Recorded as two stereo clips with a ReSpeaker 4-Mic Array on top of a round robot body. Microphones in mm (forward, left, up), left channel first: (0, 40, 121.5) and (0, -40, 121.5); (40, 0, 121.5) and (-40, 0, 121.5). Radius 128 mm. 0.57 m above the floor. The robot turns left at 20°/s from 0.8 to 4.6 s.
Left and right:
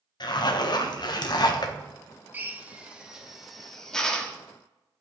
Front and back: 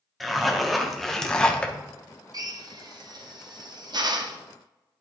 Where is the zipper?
90° left, 1.1 m; by 1.7 s 70° left, 1.1 m.